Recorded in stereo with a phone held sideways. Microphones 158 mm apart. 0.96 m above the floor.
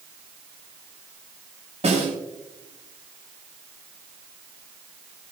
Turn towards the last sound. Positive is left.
turn(degrees=-45)  # may be behind; listen again after turning